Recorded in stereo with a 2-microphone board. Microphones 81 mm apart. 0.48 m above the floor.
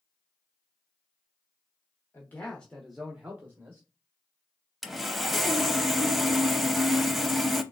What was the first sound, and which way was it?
A man speaking, 30° left (ahead or behind).